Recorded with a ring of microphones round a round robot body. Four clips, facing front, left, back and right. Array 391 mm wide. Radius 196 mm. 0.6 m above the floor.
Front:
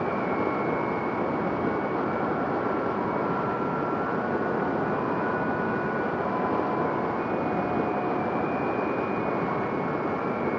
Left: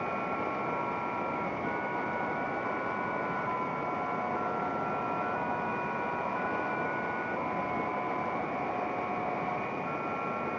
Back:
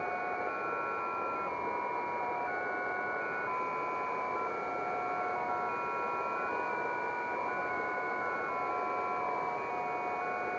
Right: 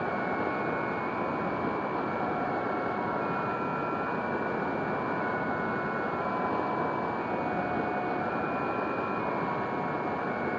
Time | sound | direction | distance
0.0 | running water | 10° right | ?